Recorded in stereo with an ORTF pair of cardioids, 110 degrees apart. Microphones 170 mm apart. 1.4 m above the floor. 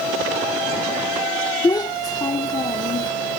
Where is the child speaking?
25° left.